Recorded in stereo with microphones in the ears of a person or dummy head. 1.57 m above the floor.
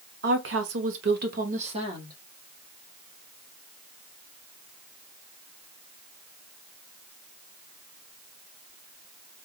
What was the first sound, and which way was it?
A woman speaking, 60° right (ahead or behind).